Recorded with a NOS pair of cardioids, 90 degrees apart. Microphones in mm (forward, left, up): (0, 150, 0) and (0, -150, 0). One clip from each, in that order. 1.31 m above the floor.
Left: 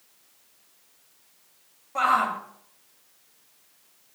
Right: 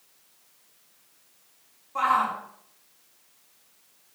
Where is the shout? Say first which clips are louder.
Left 1 dB; 35° left, 4 m.